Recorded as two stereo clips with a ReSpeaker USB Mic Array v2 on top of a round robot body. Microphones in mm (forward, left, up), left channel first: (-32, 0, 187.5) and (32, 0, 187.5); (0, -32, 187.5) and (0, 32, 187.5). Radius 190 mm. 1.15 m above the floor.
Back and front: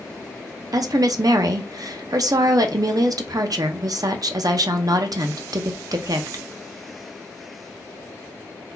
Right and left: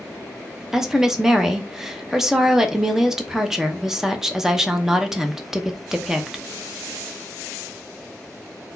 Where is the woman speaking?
10° left, 0.8 m.